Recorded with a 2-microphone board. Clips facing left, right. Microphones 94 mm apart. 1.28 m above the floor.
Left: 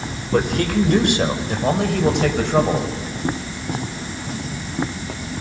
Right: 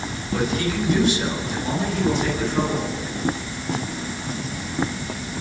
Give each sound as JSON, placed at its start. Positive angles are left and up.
{"t": 0.3, "sound": "a man speaking", "side_deg": 55, "distance_m": 4.0}